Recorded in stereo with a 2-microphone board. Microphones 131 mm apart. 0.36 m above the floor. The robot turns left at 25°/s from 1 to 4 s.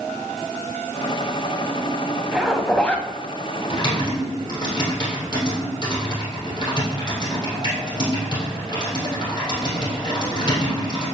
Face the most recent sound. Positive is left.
turn(degrees=35)  # may be behind; listen again after turning